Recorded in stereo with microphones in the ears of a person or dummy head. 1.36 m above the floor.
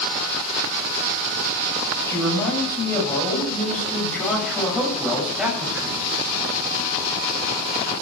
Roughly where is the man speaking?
Centre.